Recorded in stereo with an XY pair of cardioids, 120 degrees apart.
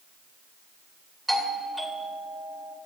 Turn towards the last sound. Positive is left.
turn(degrees=-5)